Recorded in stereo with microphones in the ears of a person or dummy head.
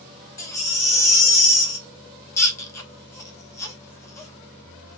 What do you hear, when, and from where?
0.4 s a baby crying: 20° left (ahead or behind), 0.6 m